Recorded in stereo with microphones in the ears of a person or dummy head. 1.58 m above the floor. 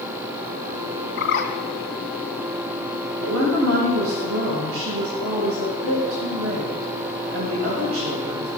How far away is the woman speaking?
About 2.0 m.